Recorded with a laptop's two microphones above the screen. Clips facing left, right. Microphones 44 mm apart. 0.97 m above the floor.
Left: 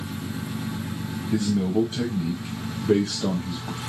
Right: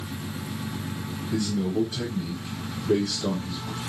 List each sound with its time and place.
1.3 s a man speaking: 40° left (ahead or behind), 0.7 m